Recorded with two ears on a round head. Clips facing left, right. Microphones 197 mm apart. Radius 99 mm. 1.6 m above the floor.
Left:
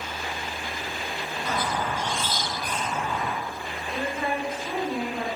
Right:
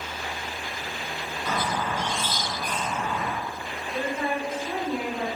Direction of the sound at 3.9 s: 70° left (ahead or behind).